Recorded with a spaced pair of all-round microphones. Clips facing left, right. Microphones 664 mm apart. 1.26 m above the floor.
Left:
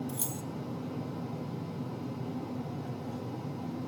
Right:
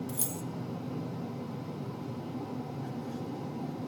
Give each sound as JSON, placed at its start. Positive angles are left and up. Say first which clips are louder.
{"t": 0.1, "sound": "keys jangling", "louder": "even", "side_deg": -50, "distance_m": 1.2}